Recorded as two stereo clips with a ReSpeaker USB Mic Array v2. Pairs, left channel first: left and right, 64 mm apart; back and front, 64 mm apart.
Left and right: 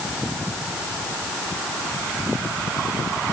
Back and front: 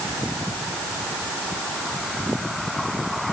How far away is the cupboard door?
No cupboard door in this recording.